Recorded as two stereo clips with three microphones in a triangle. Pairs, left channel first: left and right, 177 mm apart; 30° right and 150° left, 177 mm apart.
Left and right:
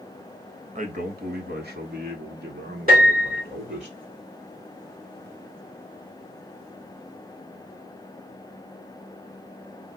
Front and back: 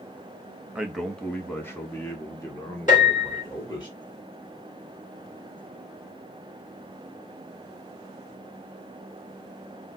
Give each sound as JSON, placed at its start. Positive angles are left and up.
{"t": 0.8, "sound": "a man speaking", "azimuth_deg": -125, "distance_m": 0.7}
{"t": 2.9, "sound": "a piano", "azimuth_deg": -65, "distance_m": 2.0}